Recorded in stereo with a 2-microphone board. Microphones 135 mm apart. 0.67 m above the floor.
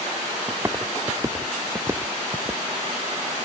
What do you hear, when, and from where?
0.5 s footsteps: 20° right (ahead or behind); by 2.6 s 25° right (ahead or behind)